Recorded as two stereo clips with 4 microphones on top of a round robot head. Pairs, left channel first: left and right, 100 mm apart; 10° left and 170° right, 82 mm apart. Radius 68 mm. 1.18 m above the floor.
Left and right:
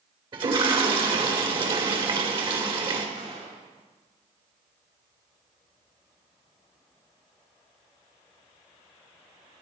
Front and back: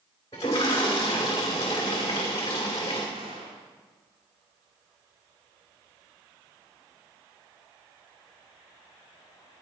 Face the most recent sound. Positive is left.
turn(degrees=-135)